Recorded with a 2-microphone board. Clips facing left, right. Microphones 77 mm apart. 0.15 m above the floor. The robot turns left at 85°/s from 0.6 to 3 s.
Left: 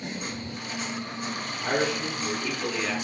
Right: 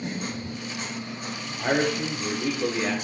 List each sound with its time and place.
1.6 s a man speaking: 50° right, 3 m; by 2.9 s 165° right, 3 m